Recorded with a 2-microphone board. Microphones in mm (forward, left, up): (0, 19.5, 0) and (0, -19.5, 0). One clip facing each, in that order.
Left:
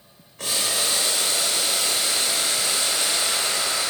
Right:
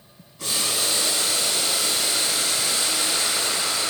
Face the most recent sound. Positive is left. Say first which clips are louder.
# left 1 dB
turn(degrees=75)  # may be behind; listen again after turning